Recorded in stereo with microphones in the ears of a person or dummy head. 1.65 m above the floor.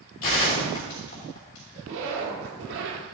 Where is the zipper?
65° right (ahead or behind), 1.3 m.